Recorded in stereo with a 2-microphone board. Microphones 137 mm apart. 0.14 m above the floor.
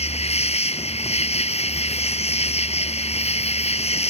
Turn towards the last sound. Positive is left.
turn(degrees=50)  # may be behind; listen again after turning